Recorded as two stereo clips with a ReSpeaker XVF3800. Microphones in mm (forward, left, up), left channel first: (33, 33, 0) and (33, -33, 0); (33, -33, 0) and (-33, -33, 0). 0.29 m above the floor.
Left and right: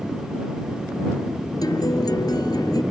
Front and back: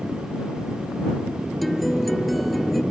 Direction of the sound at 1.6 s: 90° left.